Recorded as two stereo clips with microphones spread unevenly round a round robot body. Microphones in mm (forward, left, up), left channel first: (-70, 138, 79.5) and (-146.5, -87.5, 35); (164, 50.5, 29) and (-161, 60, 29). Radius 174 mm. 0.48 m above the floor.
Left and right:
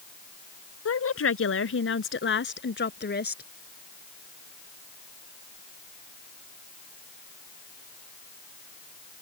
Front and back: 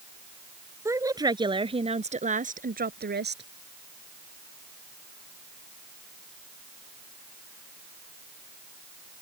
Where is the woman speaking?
95° left; by 3.4 s 120° left.